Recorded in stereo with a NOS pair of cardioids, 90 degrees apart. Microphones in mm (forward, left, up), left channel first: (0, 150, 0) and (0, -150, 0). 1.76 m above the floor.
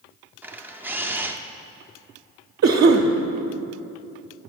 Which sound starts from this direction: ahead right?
A cough, at 2.6 s.